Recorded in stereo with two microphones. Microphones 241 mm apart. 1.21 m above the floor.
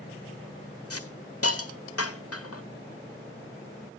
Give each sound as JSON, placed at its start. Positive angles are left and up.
{"t": 0.9, "sound": "a hiss", "side_deg": 75, "distance_m": 1.5}